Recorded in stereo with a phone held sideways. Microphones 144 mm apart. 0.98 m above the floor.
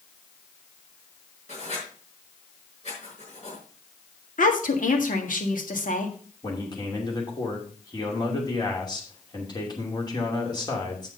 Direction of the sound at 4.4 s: 70° left (ahead or behind).